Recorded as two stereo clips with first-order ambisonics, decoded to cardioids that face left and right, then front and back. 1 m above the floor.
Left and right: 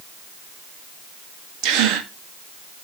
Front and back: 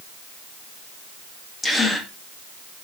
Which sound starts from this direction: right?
A gasp, at 1.6 s.